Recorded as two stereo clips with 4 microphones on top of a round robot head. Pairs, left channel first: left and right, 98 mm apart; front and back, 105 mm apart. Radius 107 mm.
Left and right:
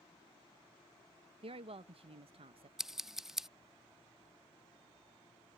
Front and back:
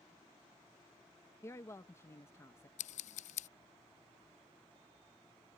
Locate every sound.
1.4 s a woman speaking: 65° right
2.8 s scissors: 5° right